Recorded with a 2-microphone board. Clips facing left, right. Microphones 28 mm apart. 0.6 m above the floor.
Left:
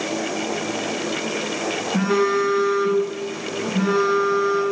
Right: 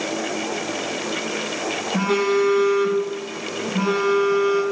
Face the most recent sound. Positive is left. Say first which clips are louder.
# even
turn(degrees=-80)